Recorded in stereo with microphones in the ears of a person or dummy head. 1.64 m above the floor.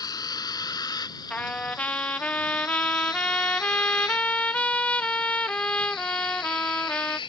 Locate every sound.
0.0 s a vehicle: 20° left (ahead or behind); by 7.3 s 25° left (ahead or behind)
1.3 s a trumpet: 5° left (ahead or behind)